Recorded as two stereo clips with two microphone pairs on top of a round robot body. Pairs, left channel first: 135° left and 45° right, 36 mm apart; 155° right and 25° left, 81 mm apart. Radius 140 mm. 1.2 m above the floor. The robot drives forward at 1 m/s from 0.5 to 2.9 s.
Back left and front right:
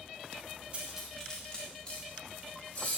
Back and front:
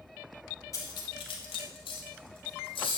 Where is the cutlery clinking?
115° right, 0.6 m; by 3.0 s 170° right, 2.5 m.